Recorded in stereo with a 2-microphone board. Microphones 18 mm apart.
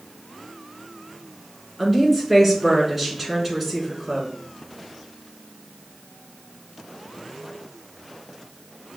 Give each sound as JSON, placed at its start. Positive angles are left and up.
{"t": 1.8, "sound": "a woman speaking", "side_deg": -15, "distance_m": 2.0}